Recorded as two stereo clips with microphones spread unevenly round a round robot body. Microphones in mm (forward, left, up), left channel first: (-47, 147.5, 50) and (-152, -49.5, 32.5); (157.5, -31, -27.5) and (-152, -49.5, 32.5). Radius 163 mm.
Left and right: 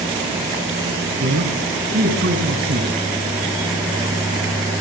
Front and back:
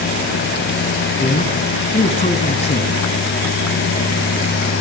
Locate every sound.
1.2 s a man speaking: 65° right, 5 m